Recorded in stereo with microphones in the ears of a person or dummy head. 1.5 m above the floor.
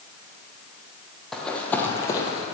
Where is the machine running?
I don't hear a machine running.